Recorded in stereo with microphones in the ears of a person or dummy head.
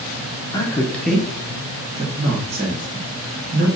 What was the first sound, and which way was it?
A man speaking, 20° left (ahead or behind).